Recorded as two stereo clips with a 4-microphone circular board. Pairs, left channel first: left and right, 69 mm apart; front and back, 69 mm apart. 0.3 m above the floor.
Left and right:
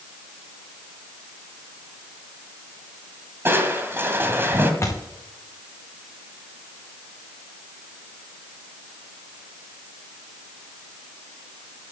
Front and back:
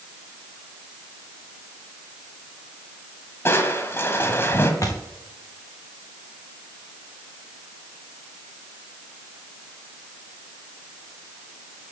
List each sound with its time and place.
3.5 s crushing: 45° right, 1.6 m
4.8 s a thud: 40° left, 3.5 m